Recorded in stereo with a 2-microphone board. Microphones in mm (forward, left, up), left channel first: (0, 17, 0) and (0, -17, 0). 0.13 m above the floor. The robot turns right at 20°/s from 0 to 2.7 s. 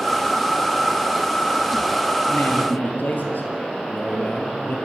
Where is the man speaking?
60° left (ahead or behind), 3 m.